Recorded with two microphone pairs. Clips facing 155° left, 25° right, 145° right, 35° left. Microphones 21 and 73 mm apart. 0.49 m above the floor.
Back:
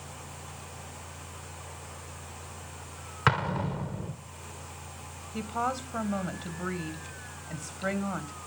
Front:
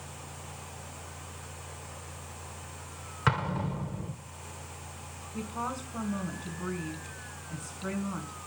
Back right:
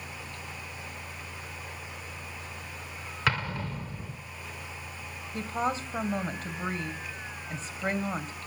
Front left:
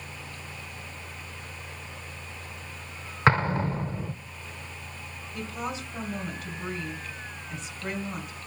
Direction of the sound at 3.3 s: 85° left.